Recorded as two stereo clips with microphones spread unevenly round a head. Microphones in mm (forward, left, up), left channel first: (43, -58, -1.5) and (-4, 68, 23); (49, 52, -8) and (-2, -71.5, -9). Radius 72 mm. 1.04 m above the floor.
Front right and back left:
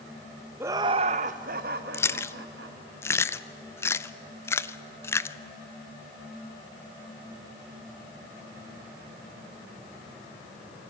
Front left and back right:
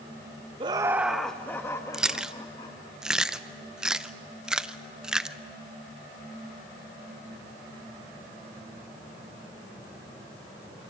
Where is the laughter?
170° right, 0.6 m; by 2.8 s 130° left, 1.7 m.